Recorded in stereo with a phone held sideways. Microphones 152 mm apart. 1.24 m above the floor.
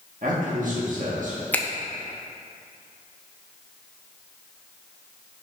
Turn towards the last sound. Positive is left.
turn(degrees=10)  # may be behind; listen again after turning